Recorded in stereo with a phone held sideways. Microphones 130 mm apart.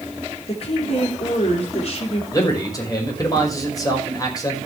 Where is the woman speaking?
50° left (ahead or behind), 4.5 m.